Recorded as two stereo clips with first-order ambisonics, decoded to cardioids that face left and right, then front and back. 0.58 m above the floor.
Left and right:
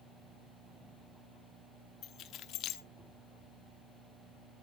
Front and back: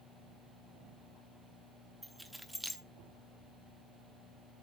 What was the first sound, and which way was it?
Keys jangling, 90° left.